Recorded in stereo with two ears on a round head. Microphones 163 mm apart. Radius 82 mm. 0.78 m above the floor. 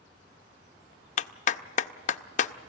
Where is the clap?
45° left (ahead or behind), 0.5 m.